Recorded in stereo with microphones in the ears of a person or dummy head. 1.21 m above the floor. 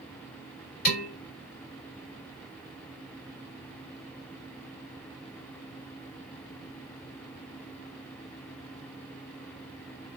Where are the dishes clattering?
45° left (ahead or behind), 2.5 m.